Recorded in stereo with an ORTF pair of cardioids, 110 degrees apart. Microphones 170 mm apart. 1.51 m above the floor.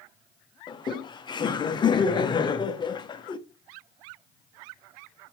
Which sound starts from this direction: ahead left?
Laughter, at 0.7 s.